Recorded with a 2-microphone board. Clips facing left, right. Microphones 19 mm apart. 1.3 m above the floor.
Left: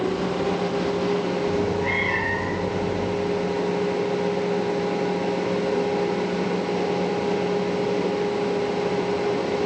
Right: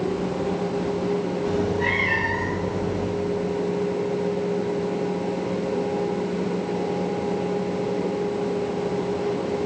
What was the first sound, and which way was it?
A cat meowing, 75° right (ahead or behind).